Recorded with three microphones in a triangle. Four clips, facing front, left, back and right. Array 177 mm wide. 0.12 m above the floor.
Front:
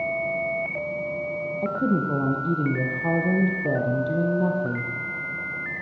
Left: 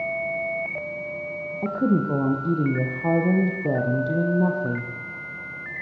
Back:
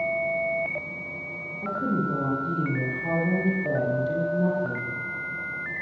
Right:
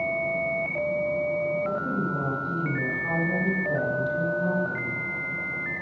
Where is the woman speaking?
65° left, 4.5 m.